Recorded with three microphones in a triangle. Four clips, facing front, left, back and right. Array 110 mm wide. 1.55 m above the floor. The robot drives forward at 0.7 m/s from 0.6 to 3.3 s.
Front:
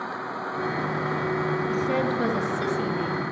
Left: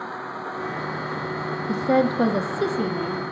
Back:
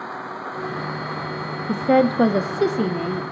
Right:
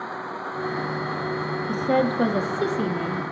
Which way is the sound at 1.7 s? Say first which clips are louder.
Left 2 dB, back 12 dB; 165° left.